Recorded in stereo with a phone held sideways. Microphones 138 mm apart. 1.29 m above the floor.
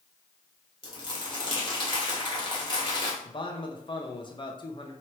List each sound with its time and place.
0.8 s crumpling: 35° left (ahead or behind), 1.7 m
3.2 s a man speaking: 35° left (ahead or behind), 0.8 m